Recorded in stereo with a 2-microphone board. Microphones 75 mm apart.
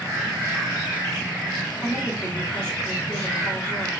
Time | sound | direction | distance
1.8 | a woman speaking | 10° left (ahead or behind) | 3.5 m